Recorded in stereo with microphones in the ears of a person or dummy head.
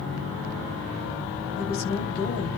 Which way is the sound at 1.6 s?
80° left.